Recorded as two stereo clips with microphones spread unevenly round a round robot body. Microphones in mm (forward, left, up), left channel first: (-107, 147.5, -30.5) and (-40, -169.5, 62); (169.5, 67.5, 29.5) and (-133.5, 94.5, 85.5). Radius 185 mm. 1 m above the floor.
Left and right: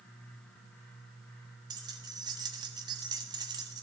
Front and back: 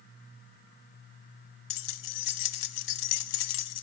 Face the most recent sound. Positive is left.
turn(degrees=5)